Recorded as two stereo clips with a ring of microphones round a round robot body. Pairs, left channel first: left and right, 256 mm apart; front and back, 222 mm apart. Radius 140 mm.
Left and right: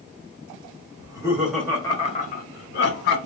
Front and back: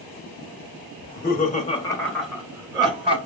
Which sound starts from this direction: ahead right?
Laughter, at 1.0 s.